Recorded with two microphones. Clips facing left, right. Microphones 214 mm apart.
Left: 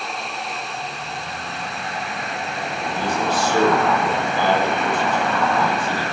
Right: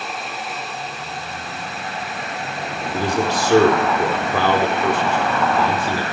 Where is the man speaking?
85° right, 5 m.